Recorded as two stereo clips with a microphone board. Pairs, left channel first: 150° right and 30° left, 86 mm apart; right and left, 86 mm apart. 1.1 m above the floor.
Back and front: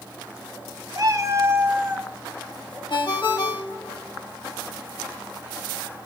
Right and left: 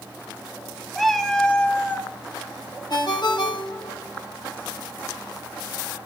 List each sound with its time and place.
0.9 s a cat meowing: straight ahead, 1.2 m; by 2.1 s 40° right, 1.0 m
2.9 s a ringtone: 125° right, 1.6 m